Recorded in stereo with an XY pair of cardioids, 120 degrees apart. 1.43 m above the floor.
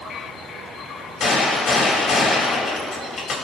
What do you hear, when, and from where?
1.2 s a gunshot: 50° left, 2.5 m